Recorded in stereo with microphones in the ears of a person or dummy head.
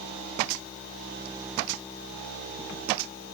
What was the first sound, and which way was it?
Only background noise.